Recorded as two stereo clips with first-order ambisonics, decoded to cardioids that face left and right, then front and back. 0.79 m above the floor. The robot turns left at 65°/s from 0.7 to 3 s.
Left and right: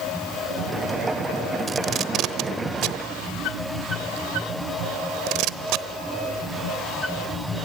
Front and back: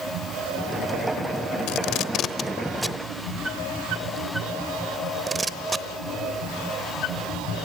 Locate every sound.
1.7 s tape being pulled: 15° right, 0.9 m; by 5.9 s 100° right, 0.9 m